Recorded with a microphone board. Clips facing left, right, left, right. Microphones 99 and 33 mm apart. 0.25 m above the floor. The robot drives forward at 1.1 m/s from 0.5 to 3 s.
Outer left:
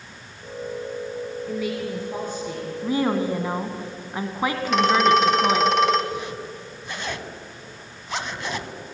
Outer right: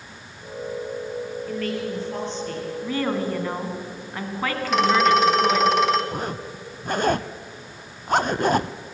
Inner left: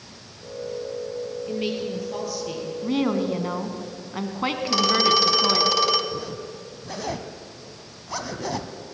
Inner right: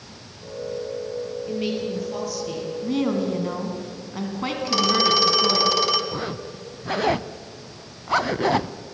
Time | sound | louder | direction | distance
1.5 | a woman speaking | even, inner right 1 dB | 10° left (ahead or behind) | 5 m
2.8 | a woman speaking | outer left 3 dB, even | 15° left (ahead or behind) | 2 m
4.7 | a phone ringing | even, even | centre (ahead or behind) | 1.5 m
6.1 | a zipper | outer right 1 dB, inner right 2 dB | 45° right (ahead or behind) | 0.6 m